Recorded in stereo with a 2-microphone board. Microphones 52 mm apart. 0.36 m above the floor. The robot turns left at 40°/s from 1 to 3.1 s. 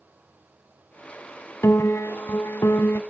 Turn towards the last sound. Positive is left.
turn(degrees=55)